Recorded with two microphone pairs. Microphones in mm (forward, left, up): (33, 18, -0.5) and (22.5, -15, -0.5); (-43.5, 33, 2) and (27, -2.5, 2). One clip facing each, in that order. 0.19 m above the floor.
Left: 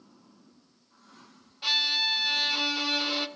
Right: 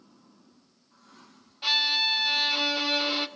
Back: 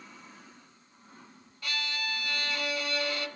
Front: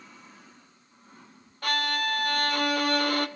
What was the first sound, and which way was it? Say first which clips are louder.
A violin: right 1 dB, front 9 dB; 25° right.